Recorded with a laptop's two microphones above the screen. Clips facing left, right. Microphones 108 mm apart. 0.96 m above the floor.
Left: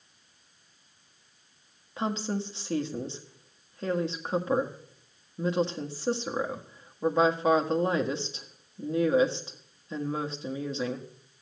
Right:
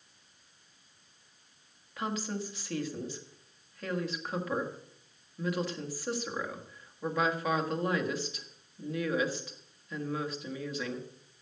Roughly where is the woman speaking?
Left.